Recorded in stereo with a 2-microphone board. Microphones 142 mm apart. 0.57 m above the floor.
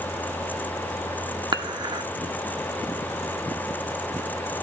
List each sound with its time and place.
1.5 s dishes clattering: 35° right (ahead or behind), 0.6 m